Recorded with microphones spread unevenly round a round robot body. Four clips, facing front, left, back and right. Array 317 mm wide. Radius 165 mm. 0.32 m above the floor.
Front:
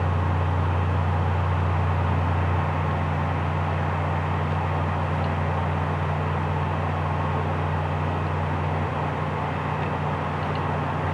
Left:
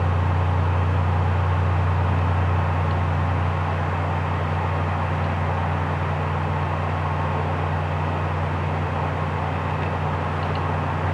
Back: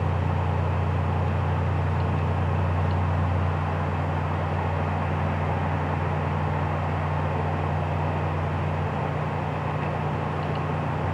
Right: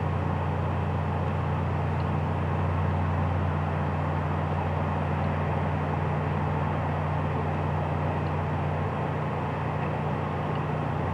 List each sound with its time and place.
Only background noise.